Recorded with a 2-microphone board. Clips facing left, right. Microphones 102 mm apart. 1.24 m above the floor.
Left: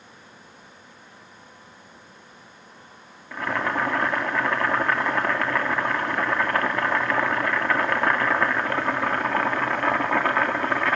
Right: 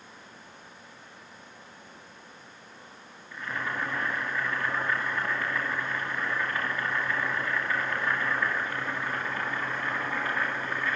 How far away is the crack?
No crack in this recording.